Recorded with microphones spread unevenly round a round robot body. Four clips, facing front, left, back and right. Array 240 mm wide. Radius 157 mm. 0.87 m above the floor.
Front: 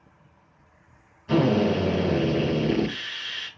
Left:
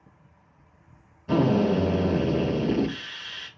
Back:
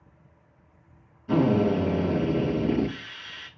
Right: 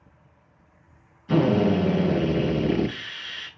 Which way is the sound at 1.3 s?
105° left.